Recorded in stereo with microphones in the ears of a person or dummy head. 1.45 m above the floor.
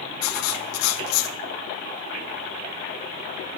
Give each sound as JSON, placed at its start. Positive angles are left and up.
{"t": 0.2, "sound": "writing", "side_deg": 85, "distance_m": 1.5}